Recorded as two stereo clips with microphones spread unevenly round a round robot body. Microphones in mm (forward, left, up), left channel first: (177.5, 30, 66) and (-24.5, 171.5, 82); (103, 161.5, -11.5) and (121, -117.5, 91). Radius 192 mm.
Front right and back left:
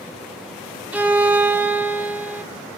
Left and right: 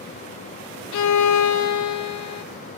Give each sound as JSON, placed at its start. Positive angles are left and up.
{"t": 0.9, "sound": "a violin", "azimuth_deg": 60, "distance_m": 0.7}